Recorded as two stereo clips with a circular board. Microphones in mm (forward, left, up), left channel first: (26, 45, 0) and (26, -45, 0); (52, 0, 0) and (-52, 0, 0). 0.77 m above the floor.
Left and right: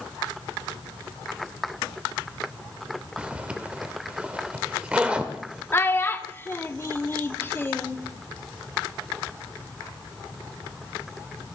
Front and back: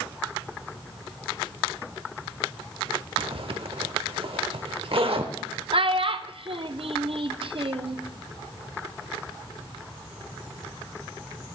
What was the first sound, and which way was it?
A zipper, 165° right.